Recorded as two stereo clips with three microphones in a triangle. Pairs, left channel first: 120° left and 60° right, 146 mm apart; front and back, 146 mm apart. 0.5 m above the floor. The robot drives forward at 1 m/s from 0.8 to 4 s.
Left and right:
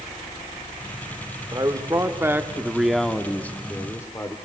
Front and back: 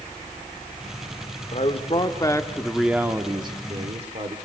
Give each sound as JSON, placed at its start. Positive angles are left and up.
{"t": 1.5, "sound": "a man speaking", "azimuth_deg": -5, "distance_m": 1.7}